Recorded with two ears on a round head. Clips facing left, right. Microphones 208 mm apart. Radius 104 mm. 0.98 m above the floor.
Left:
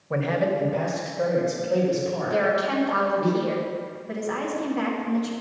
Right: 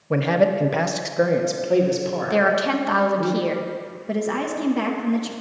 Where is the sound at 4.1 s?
55° right (ahead or behind), 1.2 m.